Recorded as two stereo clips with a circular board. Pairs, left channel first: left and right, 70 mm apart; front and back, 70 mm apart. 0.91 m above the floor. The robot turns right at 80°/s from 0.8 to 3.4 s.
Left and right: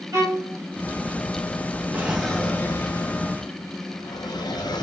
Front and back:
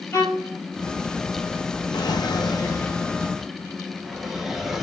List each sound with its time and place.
0.1 s a violin: 65° right, 2.5 m
1.9 s a drawer: 20° right, 0.8 m; by 4.8 s 95° left, 0.8 m